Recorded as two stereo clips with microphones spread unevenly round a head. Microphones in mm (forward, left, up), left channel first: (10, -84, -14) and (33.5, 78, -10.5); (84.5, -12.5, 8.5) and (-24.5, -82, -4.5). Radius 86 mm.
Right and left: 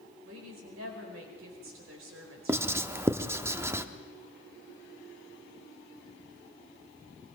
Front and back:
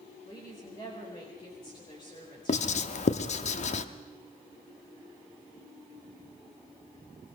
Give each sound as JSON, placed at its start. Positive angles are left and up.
{"t": 0.2, "sound": "a woman speaking", "azimuth_deg": 100, "distance_m": 4.5}
{"t": 2.5, "sound": "writing", "azimuth_deg": 5, "distance_m": 0.9}